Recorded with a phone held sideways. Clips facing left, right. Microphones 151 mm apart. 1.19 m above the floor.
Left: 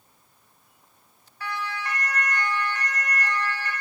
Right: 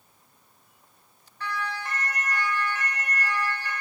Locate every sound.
1.4 s a siren: 5° left (ahead or behind), 7 m; by 3.7 s 15° right (ahead or behind), 8 m